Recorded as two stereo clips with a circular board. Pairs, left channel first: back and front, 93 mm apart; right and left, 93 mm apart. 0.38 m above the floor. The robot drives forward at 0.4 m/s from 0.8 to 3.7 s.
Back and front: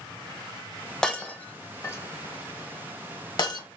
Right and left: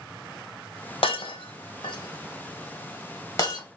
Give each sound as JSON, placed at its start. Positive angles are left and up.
{"t": 1.0, "sound": "breaking glass", "azimuth_deg": -95, "distance_m": 0.8}